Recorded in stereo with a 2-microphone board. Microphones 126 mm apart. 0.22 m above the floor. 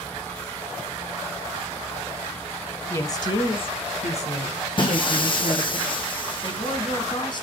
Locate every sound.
2.9 s a woman speaking: 20° left (ahead or behind), 1.0 m; by 5.8 s 70° left (ahead or behind), 2.5 m
4.8 s breaking glass: 40° left (ahead or behind), 1.8 m
6.4 s a woman speaking: 40° left (ahead or behind), 2 m